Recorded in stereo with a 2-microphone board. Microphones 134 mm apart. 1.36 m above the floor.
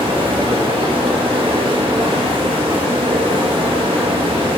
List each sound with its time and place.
0.0 s running water: 40° right (ahead or behind), 0.9 m